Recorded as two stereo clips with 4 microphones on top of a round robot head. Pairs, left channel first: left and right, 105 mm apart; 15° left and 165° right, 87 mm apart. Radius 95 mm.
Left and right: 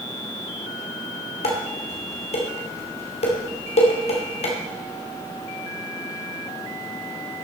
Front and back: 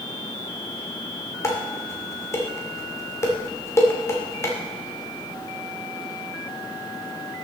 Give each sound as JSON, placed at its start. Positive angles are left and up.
{"t": 1.4, "sound": "dishes clattering", "azimuth_deg": 70, "distance_m": 2.5}